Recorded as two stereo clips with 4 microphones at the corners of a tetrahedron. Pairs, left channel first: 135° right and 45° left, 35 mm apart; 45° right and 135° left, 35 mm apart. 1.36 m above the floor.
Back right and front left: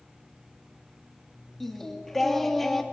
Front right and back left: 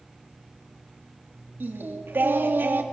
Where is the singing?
140° left, 2.5 m.